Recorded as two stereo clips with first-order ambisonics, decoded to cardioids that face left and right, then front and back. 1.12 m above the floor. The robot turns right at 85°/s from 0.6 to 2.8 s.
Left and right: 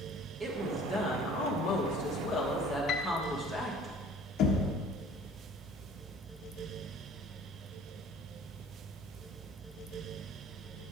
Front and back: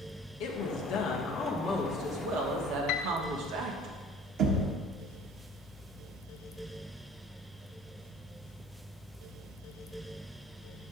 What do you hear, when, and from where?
0.4 s a woman speaking: straight ahead, 1.5 m; by 3.9 s 175° right, 1.5 m
2.9 s a piano: 35° left, 0.6 m
4.4 s knocking: 135° left, 1.2 m